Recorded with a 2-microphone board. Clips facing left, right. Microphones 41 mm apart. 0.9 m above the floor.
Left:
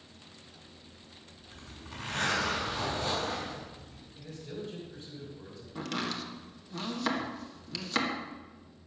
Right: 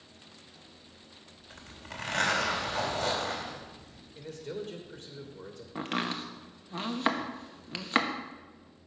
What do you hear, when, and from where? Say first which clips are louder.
1.5 s a zipper: right 3 dB; 65° right (ahead or behind), 4 m
4.2 s a man speaking: right 3 dB; 60° right (ahead or behind), 2.5 m
5.8 s chopping: right 2 dB; 35° right (ahead or behind), 1.2 m